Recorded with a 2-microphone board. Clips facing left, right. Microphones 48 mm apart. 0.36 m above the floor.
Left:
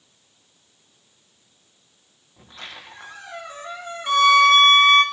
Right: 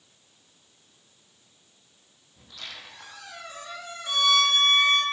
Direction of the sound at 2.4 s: 30° left (ahead or behind).